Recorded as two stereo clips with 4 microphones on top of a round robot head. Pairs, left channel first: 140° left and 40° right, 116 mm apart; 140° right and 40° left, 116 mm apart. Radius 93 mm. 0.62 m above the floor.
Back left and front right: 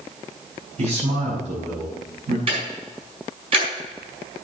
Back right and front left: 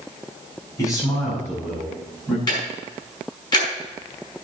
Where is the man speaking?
75° right, 6 m; by 2.4 s 60° right, 5 m.